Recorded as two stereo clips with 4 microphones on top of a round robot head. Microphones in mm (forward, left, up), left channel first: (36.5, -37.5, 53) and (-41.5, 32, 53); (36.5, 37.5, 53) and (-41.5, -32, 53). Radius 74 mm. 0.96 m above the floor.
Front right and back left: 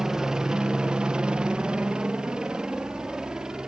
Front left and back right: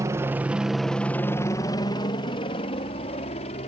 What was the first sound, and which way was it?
A helicopter, 140° right.